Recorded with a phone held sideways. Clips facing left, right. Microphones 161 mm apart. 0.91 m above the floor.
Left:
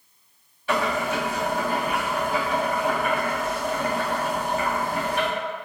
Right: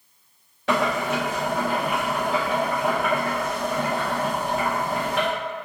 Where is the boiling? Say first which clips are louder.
Right 2 dB; 80° right, 1.6 m.